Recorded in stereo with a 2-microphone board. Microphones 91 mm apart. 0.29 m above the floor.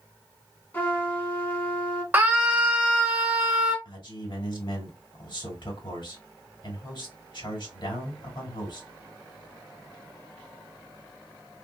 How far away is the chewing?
I don't hear chewing.